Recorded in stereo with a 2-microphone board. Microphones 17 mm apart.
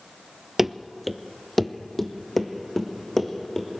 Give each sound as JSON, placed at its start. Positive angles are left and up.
{"t": 0.6, "sound": "running footsteps", "side_deg": -20, "distance_m": 0.7}